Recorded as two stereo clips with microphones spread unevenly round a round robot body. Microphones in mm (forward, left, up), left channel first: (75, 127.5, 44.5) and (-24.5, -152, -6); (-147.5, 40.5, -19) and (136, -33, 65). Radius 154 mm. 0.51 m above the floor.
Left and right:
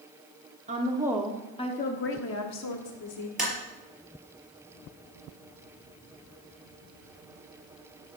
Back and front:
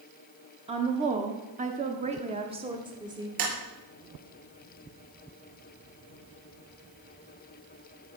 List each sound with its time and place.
0.7 s a woman speaking: 95° right, 1.5 m; by 3.3 s 70° left, 2 m
3.4 s tapping: 20° right, 5 m